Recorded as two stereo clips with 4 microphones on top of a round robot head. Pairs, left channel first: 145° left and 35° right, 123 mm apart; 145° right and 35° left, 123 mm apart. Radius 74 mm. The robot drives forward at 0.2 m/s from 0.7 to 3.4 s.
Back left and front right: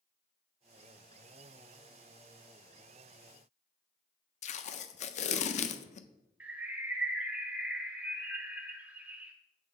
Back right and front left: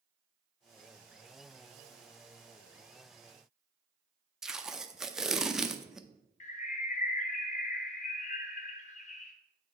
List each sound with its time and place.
4.4 s tape being pulled: 120° left, 0.5 m
6.4 s a bird: 115° right, 0.5 m